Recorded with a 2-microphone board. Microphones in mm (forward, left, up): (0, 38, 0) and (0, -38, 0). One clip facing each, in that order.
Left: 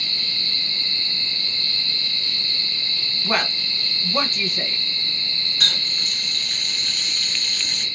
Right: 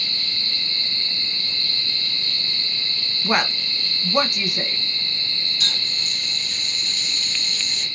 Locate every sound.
3.2 s a woman speaking: 15° right (ahead or behind), 1.5 m
5.6 s a running tap: 50° left (ahead or behind), 1.9 m